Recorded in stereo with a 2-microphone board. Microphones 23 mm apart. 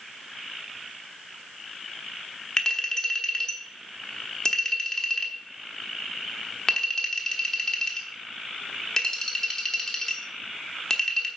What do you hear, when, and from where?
2.6 s a clink: 25° left (ahead or behind), 1.0 m